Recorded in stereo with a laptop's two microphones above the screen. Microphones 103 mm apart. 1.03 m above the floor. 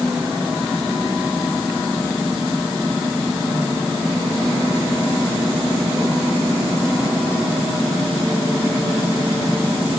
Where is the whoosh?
No whoosh in this recording.